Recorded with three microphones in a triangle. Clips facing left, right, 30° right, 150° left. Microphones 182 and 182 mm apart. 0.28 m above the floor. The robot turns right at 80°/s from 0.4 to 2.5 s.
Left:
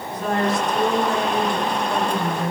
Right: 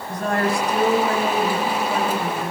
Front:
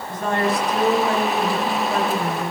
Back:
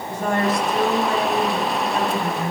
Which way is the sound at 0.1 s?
130° right.